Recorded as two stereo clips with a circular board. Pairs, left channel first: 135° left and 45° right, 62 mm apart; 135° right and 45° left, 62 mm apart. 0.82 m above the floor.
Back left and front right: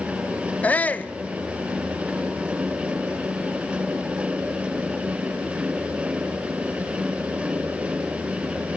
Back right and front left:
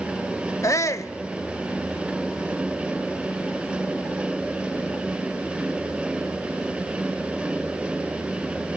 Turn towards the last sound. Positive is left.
turn(degrees=-165)